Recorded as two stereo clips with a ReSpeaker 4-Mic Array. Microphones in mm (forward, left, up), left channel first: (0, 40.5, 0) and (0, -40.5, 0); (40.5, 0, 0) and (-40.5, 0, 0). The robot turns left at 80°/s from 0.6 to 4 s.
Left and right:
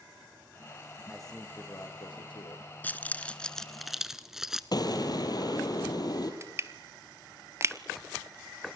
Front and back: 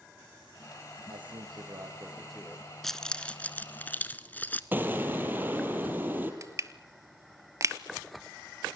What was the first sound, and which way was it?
A man speaking, 175° right.